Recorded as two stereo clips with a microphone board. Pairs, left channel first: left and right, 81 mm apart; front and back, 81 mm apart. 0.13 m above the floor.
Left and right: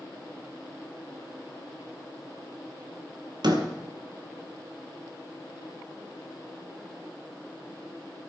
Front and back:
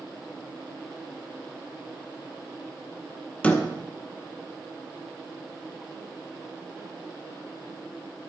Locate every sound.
3.4 s a door slam: 70° right, 2 m